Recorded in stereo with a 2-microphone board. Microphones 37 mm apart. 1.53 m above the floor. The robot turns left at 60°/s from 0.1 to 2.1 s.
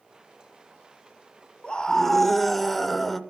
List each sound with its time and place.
1.6 s a scream: 35° left (ahead or behind), 0.7 m; by 3.2 s 5° left (ahead or behind), 0.7 m